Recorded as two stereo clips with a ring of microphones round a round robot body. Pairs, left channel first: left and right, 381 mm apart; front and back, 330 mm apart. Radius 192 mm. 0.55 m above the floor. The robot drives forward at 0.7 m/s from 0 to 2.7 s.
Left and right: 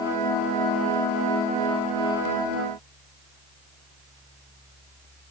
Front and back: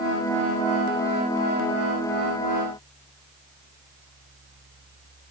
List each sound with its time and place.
Only background noise.